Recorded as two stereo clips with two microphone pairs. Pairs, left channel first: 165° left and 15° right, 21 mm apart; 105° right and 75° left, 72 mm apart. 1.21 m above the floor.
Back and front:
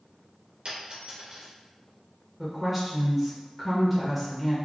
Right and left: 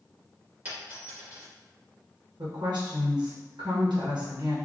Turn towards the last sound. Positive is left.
turn(degrees=65)